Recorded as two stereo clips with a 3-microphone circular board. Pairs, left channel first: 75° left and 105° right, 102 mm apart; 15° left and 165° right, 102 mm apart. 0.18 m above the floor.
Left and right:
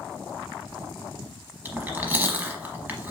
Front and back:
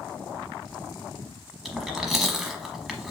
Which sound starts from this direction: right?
Chewing, at 1.6 s.